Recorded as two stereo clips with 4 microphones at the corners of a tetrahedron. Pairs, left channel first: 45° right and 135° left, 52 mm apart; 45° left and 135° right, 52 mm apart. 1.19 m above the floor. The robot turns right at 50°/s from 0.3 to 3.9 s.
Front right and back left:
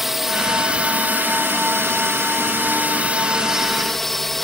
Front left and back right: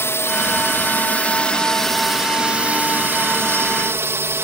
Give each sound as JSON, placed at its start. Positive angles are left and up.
{"t": 0.0, "sound": "a drone", "azimuth_deg": 50}